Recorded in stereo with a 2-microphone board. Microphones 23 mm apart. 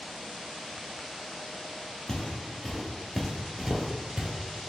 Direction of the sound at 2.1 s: 30° left (ahead or behind).